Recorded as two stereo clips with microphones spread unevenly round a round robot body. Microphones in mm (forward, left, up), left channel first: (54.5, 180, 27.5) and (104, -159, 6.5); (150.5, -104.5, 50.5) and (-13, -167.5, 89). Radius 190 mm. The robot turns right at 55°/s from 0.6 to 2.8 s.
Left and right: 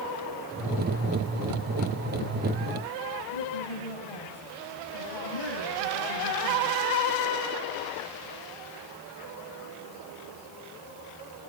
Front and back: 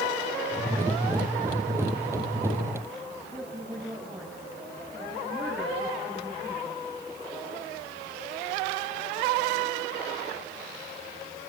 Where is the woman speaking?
120° left, 7.5 m.